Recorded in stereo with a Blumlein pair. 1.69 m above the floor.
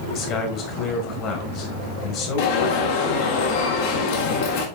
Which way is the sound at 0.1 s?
40° left.